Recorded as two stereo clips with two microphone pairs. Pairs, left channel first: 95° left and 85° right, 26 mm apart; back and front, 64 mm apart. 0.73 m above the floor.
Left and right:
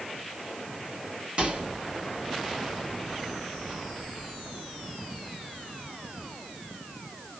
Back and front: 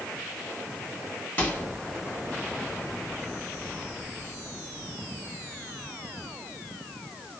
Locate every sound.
1.4 s a microwave: 120° right, 1.4 m